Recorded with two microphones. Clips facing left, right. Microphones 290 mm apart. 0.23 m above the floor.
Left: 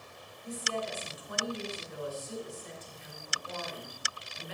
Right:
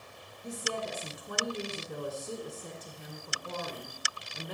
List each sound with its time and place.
0.4 s a woman speaking: 60° right (ahead or behind), 2.5 m